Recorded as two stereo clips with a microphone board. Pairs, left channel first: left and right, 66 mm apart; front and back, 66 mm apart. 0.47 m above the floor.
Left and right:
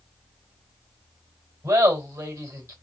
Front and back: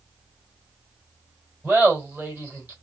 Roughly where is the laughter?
Behind right.